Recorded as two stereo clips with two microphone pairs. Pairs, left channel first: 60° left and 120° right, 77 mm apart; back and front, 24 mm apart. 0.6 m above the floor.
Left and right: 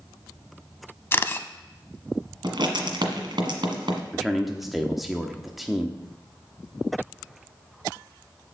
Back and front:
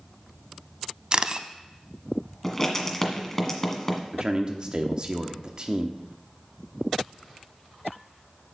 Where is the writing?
110° right, 1.4 m.